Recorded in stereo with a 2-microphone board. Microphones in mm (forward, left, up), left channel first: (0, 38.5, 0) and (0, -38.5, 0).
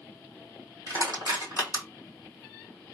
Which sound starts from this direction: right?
Crushing, at 0.9 s.